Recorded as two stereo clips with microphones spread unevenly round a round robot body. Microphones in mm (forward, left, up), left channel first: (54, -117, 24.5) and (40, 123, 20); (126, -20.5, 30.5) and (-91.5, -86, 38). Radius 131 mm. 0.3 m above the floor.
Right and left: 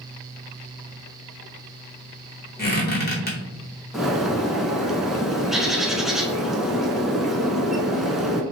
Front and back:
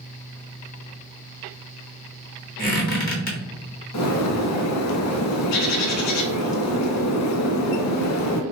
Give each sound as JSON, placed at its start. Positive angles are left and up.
{"t": 2.6, "sound": "a squeak", "azimuth_deg": -35, "distance_m": 1.1}
{"t": 3.9, "sound": "a bird", "azimuth_deg": 5, "distance_m": 0.5}